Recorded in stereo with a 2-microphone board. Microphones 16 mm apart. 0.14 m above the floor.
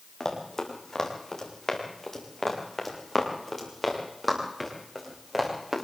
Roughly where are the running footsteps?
Left.